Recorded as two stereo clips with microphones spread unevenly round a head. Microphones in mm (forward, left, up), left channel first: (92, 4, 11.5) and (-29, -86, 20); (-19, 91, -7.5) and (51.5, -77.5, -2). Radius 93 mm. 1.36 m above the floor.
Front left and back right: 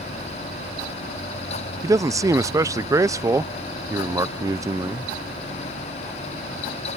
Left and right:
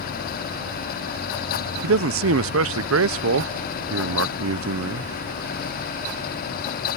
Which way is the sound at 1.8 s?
70° right.